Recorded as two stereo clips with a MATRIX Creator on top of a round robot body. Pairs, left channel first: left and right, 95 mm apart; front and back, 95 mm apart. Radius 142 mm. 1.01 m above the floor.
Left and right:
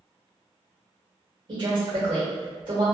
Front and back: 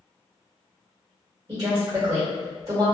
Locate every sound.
1.5 s a woman speaking: 120° right, 1.2 m